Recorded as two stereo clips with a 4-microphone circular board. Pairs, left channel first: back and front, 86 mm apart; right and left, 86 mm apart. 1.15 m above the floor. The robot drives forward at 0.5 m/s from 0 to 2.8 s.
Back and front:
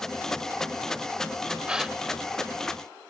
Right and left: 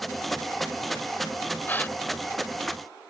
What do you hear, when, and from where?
1.7 s a gasp: 60° right; by 2.0 s 85° right